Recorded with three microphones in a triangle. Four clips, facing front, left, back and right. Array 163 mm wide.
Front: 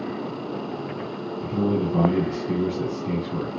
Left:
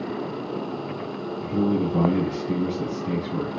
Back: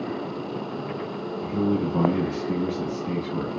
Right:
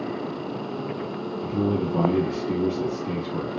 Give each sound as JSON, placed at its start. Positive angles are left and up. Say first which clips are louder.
{"t": 1.4, "sound": "a man speaking", "louder": "left 2 dB, front 1 dB", "azimuth_deg": 20, "distance_m": 2.0}